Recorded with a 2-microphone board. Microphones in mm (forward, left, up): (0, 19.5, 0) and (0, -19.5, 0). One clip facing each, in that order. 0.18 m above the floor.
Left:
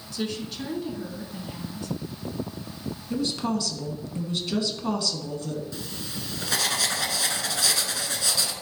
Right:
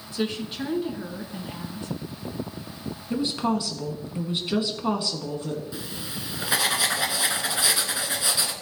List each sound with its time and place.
0.1 s a woman speaking: 25° right (ahead or behind), 2 m
3.1 s a woman speaking: 20° right (ahead or behind), 2.0 m
5.7 s writing: 20° right (ahead or behind), 1.4 m